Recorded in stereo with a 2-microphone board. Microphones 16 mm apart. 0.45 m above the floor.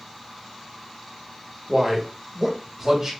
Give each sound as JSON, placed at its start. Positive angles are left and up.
{"t": 1.7, "sound": "a man speaking", "side_deg": -10, "distance_m": 1.1}